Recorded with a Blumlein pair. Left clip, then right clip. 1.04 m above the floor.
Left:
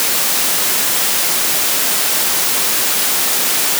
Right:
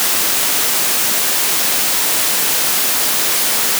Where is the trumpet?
I don't hear a trumpet.